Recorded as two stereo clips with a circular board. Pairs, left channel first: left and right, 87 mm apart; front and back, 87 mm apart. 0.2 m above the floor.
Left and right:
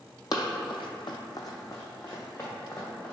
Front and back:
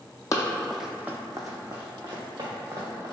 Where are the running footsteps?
50° left, 0.5 m; by 3.1 s 160° left, 1.9 m.